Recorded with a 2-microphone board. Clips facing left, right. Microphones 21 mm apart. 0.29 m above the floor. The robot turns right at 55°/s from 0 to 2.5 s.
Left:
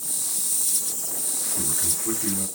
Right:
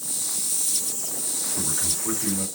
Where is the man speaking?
95° right, 1.9 m; by 2.5 s 45° right, 1.9 m.